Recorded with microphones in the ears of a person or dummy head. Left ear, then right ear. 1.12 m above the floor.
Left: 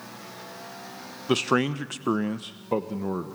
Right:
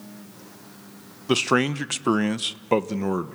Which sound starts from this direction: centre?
A man speaking, at 1.3 s.